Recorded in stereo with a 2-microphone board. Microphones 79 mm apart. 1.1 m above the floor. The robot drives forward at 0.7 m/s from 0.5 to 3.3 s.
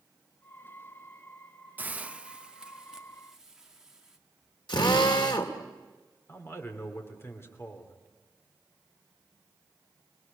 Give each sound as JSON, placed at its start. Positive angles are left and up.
{"t": 1.8, "sound": "a hiss", "side_deg": -25, "distance_m": 0.6}
{"t": 4.7, "sound": "a drill", "side_deg": 80, "distance_m": 2.5}
{"t": 6.3, "sound": "a man speaking", "side_deg": 30, "distance_m": 3.5}